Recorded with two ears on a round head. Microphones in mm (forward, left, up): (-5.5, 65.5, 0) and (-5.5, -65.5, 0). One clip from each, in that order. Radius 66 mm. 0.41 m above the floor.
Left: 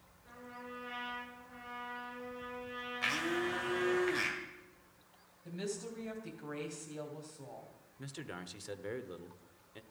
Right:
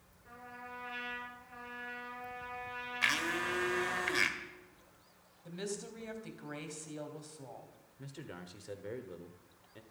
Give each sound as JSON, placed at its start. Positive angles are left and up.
{"t": 0.2, "sound": "a trumpet", "side_deg": -65, "distance_m": 8.0}
{"t": 3.0, "sound": "a blender", "side_deg": -40, "distance_m": 1.7}
{"t": 5.5, "sound": "a woman speaking", "side_deg": -25, "distance_m": 3.0}
{"t": 8.0, "sound": "a man speaking", "side_deg": 30, "distance_m": 0.9}